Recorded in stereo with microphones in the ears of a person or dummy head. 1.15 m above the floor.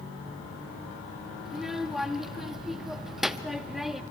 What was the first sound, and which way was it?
A child speaking, centre (ahead or behind).